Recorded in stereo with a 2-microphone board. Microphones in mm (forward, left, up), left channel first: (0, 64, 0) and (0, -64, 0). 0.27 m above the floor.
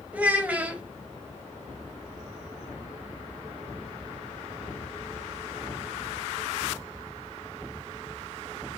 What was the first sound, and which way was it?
A child speaking, 10° right (ahead or behind).